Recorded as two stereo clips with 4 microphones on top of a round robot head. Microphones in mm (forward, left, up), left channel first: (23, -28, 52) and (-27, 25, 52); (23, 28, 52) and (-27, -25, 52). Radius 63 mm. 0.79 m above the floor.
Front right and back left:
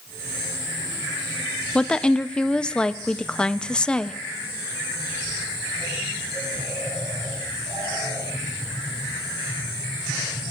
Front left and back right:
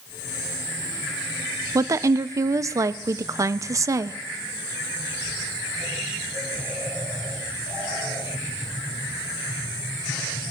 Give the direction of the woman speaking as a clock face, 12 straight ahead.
4 o'clock.